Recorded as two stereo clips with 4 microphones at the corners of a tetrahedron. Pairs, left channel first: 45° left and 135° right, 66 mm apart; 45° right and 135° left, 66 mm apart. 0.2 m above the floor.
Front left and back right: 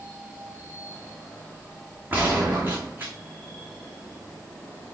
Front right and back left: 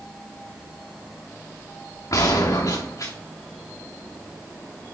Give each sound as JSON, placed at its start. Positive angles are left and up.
{"t": 2.1, "sound": "a gunshot", "azimuth_deg": -75, "distance_m": 2.5}